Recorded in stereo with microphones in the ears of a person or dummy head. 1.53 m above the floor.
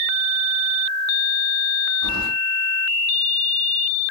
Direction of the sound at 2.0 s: 75° right (ahead or behind).